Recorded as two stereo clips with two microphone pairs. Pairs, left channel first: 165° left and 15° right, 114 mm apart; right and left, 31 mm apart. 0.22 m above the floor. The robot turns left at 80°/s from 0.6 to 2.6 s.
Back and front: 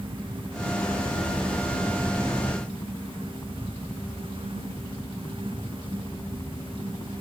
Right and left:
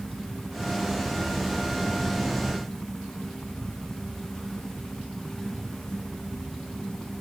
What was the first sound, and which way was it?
A helicopter, 5° left.